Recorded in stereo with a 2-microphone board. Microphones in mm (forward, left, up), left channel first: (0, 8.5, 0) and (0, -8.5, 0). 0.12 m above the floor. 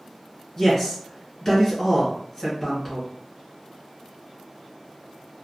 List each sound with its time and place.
0.6 s a man speaking: 25° left (ahead or behind), 1.5 m